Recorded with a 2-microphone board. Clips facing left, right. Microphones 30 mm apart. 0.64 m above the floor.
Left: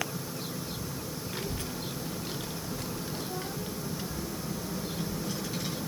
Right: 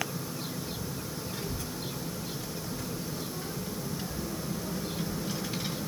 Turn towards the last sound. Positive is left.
turn(degrees=-10)  # may be behind; listen again after turning